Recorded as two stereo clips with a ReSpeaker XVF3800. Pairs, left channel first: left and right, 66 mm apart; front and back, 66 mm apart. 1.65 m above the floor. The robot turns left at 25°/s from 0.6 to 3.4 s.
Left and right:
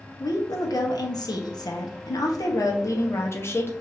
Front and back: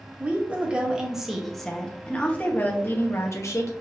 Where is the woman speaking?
110° left, 1.0 m; by 3.7 s 40° left, 1.0 m.